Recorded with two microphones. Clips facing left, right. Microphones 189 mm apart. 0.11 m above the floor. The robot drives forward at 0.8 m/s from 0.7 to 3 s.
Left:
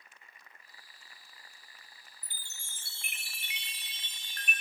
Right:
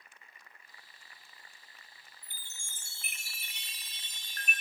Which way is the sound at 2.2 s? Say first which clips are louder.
Left 1 dB; 60° right (ahead or behind).